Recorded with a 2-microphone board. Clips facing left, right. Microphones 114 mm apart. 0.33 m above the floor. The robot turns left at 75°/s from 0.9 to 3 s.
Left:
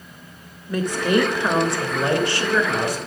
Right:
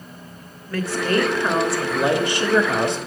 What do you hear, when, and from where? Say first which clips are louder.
0.7 s a woman speaking: left 2 dB; 20° left (ahead or behind), 0.9 m; by 3.0 s 25° right (ahead or behind), 0.9 m